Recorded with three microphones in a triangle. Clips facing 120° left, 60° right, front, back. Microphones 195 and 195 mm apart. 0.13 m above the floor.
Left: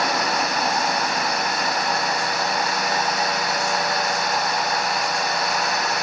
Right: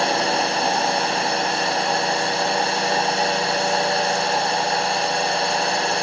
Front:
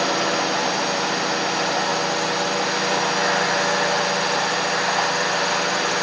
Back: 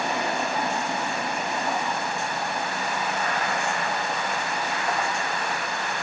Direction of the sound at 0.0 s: Straight ahead.